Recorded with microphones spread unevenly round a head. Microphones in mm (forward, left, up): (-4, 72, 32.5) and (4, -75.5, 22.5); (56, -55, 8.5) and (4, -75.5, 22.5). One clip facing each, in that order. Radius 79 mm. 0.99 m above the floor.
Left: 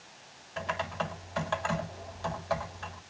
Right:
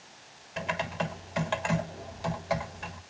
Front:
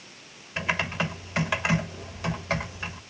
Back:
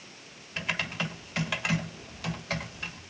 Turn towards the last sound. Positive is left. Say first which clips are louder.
# right 2 dB, front 5 dB
turn(degrees=-25)